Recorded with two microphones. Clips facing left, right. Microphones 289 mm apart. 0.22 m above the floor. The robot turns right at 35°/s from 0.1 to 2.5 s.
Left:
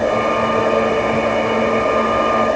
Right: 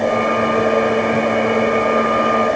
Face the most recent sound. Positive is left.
No sound to turn to.